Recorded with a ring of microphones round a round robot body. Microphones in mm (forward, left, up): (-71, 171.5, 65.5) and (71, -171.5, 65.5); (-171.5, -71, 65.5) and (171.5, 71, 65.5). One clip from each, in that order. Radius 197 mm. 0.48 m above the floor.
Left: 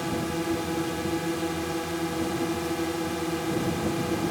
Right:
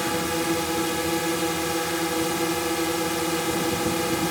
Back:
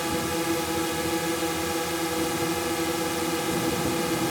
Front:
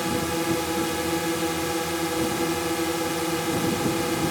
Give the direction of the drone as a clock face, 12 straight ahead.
3 o'clock.